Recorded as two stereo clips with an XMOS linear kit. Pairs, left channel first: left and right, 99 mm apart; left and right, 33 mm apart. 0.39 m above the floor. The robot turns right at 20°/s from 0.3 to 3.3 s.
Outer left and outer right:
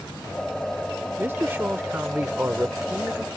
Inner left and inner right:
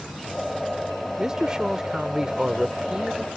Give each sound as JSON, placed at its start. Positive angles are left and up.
{"t": 1.2, "sound": "a man speaking", "side_deg": -25}